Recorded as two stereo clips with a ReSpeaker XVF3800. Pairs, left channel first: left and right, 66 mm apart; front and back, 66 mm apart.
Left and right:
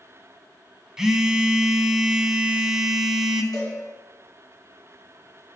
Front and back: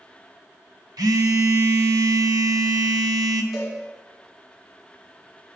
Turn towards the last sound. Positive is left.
turn(degrees=100)